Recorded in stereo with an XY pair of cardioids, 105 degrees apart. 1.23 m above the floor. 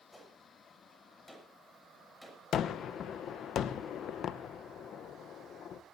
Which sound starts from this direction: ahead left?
A gunshot, at 2.5 s.